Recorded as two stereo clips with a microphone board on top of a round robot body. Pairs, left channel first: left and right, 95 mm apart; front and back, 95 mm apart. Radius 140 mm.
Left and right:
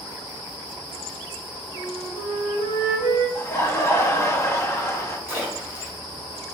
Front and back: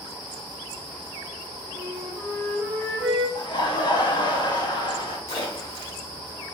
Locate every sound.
1.8 s a flute: 125° left, 0.5 m
3.4 s laughter: 30° left, 1.0 m
5.3 s a splash: 20° right, 1.8 m